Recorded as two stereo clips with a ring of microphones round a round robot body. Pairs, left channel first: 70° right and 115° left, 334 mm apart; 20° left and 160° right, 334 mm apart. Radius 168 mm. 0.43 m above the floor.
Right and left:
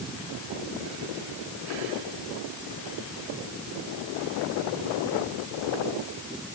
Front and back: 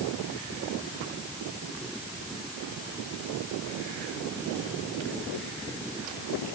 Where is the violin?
No violin in this recording.